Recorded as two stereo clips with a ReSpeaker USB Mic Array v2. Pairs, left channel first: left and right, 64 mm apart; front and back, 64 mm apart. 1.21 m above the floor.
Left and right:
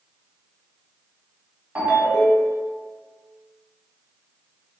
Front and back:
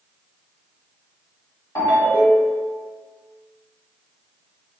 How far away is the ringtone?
About 2.0 m.